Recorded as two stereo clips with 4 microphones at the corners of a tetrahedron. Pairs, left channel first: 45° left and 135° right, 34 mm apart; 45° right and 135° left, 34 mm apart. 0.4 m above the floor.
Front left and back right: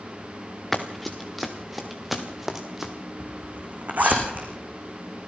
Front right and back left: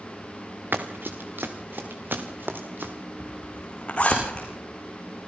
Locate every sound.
0.7 s running footsteps: 130° left, 2.5 m; by 2.9 s 145° left, 3.5 m
3.2 s a zipper: 100° right, 5.5 m